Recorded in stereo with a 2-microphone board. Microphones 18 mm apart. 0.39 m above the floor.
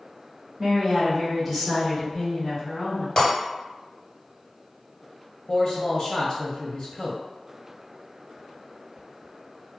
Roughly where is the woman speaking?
Centre.